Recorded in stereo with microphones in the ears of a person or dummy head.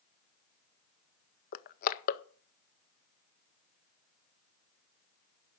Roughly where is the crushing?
Left.